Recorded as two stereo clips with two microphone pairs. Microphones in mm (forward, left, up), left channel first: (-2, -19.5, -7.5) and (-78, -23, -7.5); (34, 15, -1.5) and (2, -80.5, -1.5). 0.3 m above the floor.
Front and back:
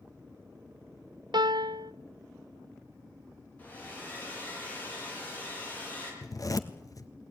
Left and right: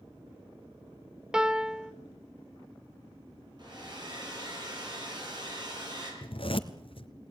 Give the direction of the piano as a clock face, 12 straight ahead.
6 o'clock.